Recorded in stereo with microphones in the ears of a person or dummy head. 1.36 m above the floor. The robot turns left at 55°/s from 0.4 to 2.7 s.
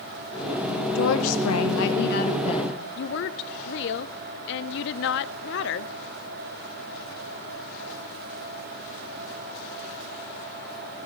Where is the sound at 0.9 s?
125° left, 1.7 m; by 2.8 s 25° left, 1.7 m.